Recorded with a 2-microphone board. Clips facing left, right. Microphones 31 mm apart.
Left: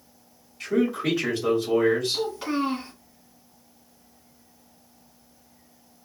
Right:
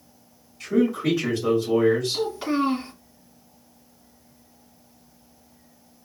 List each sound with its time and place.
0.6 s a man speaking: 20° left (ahead or behind), 1.5 m
2.1 s a child speaking: centre (ahead or behind), 1.6 m